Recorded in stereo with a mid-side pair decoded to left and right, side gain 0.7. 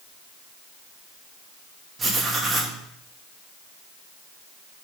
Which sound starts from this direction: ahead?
Writing, at 2.0 s.